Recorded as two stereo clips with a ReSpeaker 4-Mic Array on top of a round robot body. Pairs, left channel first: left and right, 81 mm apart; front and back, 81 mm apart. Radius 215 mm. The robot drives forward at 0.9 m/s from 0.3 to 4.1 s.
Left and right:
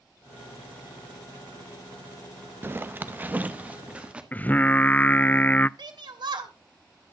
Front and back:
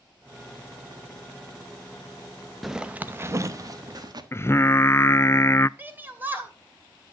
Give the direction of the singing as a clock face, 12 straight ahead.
11 o'clock.